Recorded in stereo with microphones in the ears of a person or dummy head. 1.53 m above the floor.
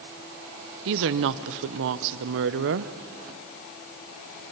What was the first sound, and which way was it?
A woman speaking, 65° right (ahead or behind).